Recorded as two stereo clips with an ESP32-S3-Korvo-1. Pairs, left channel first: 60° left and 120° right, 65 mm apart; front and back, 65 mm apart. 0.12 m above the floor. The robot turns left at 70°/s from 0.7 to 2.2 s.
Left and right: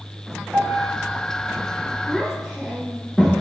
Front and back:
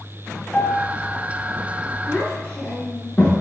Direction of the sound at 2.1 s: 15° right.